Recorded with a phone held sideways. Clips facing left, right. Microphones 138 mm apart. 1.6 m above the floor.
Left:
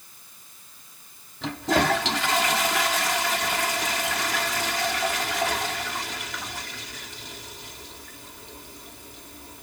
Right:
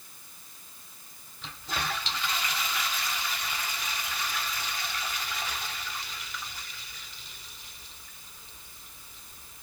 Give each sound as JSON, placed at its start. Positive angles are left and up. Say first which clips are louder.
{"t": 1.4, "sound": "a toilet flushing", "louder": "left 13 dB", "side_deg": 70}